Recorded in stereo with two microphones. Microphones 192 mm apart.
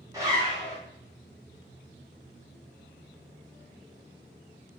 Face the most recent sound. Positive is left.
turn(degrees=-15)  # may be behind; listen again after turning